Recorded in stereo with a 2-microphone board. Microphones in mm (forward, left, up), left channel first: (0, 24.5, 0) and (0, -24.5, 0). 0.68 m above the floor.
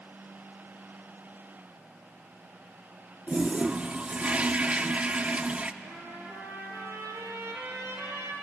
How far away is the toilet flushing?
About 0.7 m.